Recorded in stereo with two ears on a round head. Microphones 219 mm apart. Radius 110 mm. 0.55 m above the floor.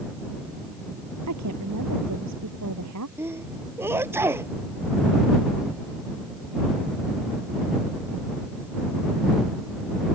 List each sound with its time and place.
1.3 s a woman speaking: 75° right (ahead or behind)
3.2 s a sneeze: 10° right (ahead or behind)